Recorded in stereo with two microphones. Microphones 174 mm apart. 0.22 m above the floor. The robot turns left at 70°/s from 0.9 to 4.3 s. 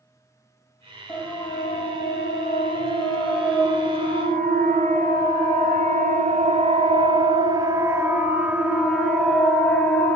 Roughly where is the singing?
No singing in this recording.